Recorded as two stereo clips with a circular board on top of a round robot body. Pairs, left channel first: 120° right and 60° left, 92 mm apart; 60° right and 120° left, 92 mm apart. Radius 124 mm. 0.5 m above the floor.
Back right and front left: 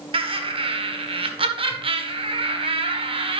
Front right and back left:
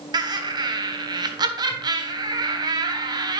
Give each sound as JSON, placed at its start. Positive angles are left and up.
{"t": 0.1, "sound": "laughter", "azimuth_deg": 80, "distance_m": 1.7}